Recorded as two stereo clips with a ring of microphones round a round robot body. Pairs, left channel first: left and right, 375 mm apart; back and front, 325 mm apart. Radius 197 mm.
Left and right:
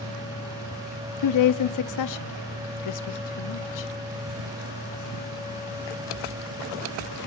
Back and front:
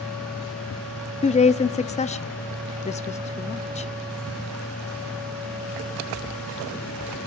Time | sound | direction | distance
1.2 | a woman speaking | 115° left | 1.1 m